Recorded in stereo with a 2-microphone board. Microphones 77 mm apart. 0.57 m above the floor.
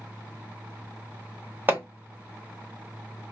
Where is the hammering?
25° right (ahead or behind), 1.0 m.